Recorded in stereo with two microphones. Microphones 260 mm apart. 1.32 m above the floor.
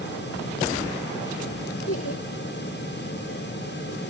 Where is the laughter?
60° left (ahead or behind).